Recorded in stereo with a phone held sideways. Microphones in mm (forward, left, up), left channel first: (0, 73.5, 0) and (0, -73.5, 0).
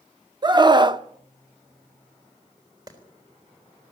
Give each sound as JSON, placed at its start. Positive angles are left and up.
{"t": 0.4, "sound": "a scream", "side_deg": -30, "distance_m": 0.8}
{"t": 2.9, "sound": "a clap", "side_deg": -25, "distance_m": 3.5}